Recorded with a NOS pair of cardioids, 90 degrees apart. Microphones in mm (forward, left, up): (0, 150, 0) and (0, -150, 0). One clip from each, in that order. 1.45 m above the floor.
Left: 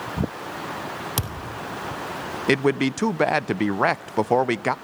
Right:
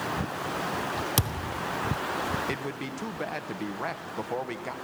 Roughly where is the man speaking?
Ahead left.